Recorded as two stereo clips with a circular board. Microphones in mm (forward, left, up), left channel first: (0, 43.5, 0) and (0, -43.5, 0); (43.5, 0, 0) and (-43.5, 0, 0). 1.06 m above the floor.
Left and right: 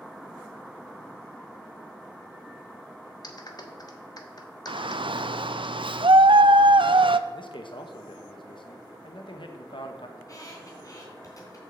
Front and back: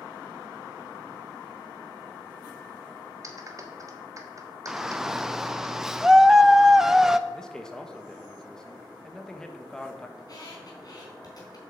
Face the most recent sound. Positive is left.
turn(degrees=40)